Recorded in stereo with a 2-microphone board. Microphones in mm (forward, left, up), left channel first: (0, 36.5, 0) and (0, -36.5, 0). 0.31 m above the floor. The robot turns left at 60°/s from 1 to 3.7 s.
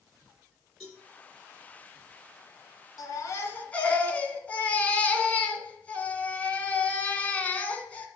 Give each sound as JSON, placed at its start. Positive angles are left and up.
{"t": 0.8, "sound": "a cowbell", "side_deg": -5, "distance_m": 4.0}
{"t": 3.0, "sound": "a baby crying", "azimuth_deg": 65, "distance_m": 1.4}